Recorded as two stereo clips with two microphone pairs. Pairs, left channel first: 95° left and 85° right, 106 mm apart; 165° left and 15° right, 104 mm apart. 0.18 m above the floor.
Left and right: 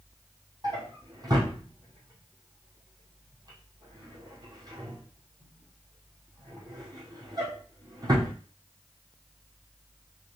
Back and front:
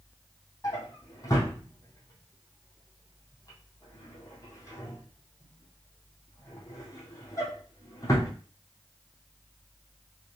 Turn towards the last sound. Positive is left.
turn(degrees=-135)